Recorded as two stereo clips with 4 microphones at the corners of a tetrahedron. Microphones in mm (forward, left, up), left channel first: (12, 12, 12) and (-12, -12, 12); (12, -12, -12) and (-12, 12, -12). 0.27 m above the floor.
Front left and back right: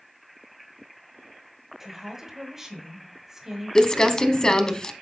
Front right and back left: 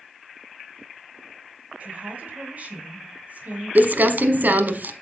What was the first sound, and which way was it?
A woman speaking, 150° left.